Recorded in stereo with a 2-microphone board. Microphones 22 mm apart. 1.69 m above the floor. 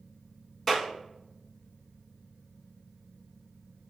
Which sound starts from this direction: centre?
A clap, at 0.7 s.